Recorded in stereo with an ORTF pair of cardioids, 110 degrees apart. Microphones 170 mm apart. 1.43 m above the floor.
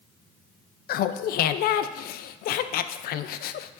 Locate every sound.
0.9 s laughter: 65° left, 0.5 m